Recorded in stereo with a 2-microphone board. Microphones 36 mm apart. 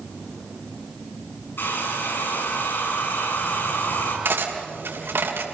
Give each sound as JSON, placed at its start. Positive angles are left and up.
{"t": 1.6, "sound": "a hair dryer", "side_deg": 75, "distance_m": 7.0}
{"t": 4.2, "sound": "cutlery clinking", "side_deg": -80, "distance_m": 3.0}